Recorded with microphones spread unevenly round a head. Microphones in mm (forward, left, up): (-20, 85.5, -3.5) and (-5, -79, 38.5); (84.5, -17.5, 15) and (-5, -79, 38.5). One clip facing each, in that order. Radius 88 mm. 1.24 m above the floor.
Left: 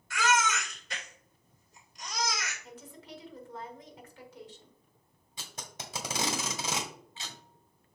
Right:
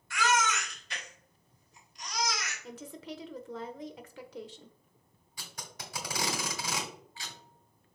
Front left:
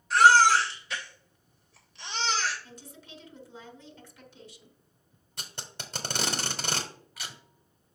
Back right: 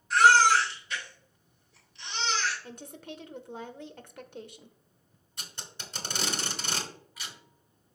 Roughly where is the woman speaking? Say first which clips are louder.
Right 5 dB, back right 6 dB; right.